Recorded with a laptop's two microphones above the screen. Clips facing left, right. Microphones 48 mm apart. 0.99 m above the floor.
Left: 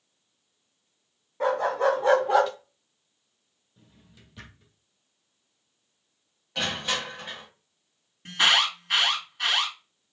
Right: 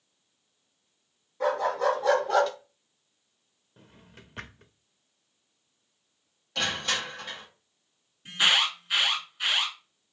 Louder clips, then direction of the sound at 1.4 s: Left 2 dB; 35° left (ahead or behind).